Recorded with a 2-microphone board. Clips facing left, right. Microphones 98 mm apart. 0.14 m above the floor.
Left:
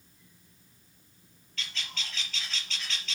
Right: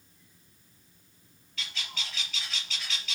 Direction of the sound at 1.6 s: 10° right (ahead or behind).